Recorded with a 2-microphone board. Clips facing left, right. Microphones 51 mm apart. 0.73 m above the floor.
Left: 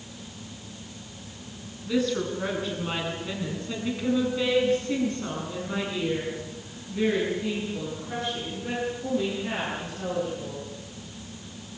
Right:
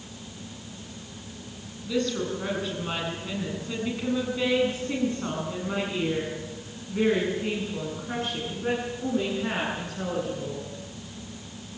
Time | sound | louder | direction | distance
1.9 | a woman speaking | left 1 dB | 10° left (ahead or behind) | 8 m